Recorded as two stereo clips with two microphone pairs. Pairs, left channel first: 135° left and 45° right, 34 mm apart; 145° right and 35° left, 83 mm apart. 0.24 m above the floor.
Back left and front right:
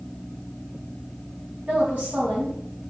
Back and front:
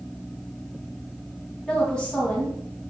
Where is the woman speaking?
65° right, 1.9 m.